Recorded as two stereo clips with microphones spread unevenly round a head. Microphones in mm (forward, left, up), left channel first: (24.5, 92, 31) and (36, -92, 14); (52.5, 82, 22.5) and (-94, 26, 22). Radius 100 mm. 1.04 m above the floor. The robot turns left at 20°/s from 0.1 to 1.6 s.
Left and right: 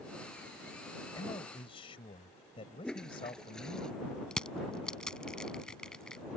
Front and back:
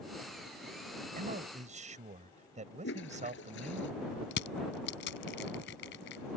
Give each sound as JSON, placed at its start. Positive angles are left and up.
{"t": 1.1, "sound": "a man speaking", "azimuth_deg": 170}
{"t": 2.8, "sound": "a toilet flushing", "azimuth_deg": 10}
{"t": 4.3, "sound": "crushing", "azimuth_deg": 10}